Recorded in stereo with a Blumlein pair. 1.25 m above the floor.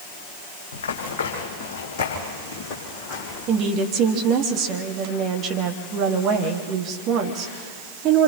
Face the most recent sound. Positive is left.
turn(degrees=-35)